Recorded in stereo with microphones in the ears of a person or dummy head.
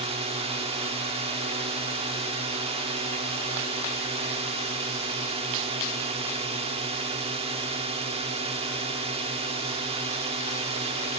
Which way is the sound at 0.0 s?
30° right (ahead or behind).